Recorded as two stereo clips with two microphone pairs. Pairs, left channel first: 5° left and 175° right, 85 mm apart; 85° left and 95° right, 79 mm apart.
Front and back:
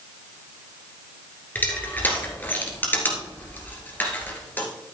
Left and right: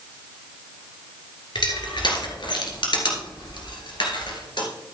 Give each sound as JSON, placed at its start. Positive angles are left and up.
{"t": 1.6, "sound": "crushing", "azimuth_deg": 75, "distance_m": 2.0}